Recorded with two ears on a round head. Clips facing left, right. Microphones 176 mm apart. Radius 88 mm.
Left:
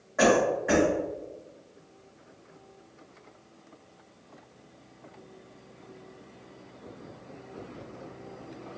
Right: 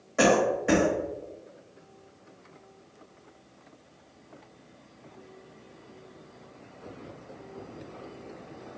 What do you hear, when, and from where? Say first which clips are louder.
0.2 s a cough: even; 40° right (ahead or behind), 1.2 m